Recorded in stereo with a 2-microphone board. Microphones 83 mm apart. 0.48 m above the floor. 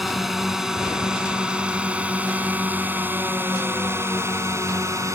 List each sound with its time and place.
0.0 s a drone: centre (ahead or behind); by 5.2 s 35° right (ahead or behind)